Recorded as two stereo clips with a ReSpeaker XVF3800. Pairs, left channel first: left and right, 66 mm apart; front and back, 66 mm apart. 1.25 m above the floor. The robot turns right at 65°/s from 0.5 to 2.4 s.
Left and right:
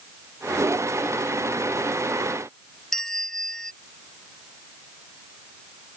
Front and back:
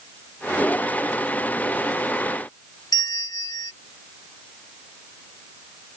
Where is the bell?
5° left.